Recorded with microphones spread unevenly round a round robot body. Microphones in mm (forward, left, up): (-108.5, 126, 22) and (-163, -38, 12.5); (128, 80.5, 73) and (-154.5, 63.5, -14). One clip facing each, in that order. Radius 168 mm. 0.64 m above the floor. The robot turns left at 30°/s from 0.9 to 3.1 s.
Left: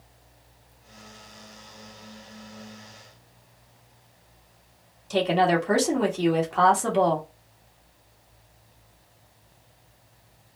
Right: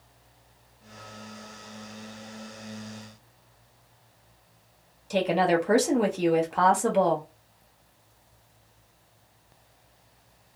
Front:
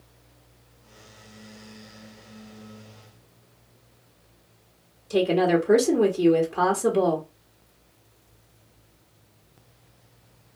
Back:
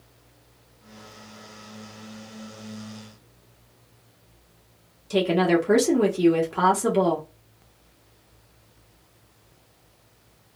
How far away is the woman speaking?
About 1.2 m.